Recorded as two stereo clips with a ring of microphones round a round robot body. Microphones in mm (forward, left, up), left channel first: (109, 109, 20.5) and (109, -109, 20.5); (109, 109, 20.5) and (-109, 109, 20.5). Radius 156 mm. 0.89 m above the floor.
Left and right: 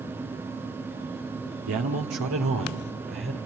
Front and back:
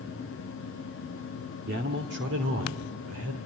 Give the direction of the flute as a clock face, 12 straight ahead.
No flute in this recording.